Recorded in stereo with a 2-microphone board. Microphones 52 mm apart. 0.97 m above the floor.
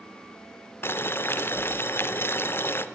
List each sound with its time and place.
0.8 s boiling: 45° left (ahead or behind), 0.5 m